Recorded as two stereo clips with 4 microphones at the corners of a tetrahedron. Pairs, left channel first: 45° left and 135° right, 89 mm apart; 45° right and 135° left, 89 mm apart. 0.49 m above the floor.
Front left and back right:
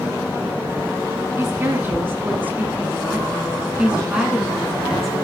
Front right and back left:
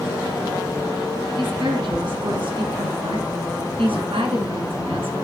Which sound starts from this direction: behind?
A woman speaking, at 1.4 s.